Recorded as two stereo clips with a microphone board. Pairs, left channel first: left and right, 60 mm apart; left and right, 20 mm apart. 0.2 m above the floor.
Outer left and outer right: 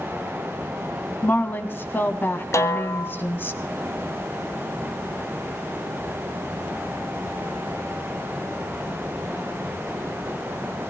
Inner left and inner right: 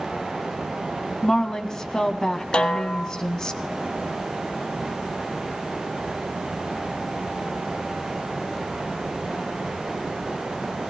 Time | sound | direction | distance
1.2 | a woman speaking | 35° left (ahead or behind) | 1.4 m
2.5 | a snare drum | 60° left (ahead or behind) | 1.1 m